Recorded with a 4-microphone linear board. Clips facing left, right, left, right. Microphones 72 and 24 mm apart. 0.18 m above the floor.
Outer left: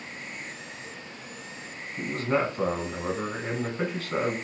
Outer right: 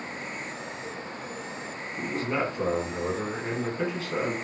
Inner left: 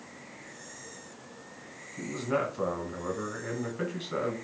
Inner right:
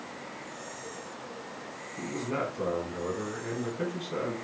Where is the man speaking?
45° left (ahead or behind), 1.8 m.